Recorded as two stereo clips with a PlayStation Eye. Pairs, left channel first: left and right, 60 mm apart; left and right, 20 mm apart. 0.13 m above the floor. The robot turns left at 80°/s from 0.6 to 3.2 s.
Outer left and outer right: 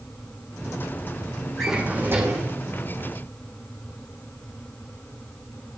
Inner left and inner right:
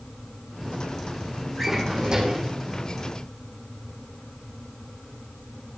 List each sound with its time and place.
1.6 s a drawer: 5° left, 2.5 m; by 2.5 s 70° right, 2.5 m